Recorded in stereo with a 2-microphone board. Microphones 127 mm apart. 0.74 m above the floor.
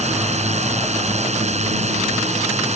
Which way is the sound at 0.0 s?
60° right (ahead or behind).